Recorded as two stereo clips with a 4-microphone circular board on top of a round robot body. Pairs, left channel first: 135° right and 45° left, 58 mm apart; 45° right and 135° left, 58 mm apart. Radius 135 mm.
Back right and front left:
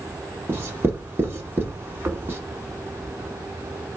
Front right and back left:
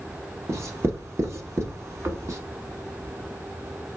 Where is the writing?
95° left, 1.1 m.